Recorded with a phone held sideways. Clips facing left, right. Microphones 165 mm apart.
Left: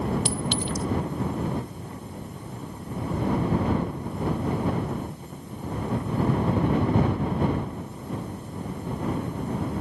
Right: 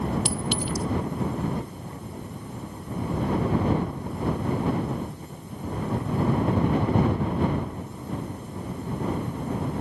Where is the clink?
5° right (ahead or behind).